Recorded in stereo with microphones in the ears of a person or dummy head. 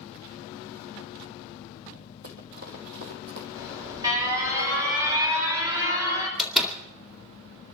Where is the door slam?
5° right (ahead or behind), 2 m.